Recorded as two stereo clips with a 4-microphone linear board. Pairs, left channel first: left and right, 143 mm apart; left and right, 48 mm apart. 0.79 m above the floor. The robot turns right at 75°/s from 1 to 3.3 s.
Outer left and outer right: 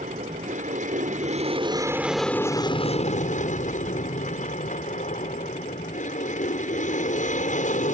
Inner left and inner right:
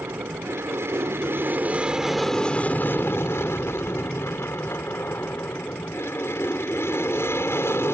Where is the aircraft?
90° right; by 7.9 s 85° left.